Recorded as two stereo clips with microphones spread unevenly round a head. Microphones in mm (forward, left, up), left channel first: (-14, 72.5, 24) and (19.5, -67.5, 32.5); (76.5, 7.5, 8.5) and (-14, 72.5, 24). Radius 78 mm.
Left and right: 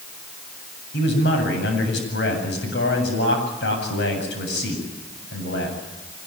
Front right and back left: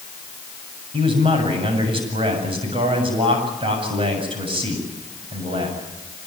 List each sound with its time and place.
0.9 s a man speaking: 105° left, 8 m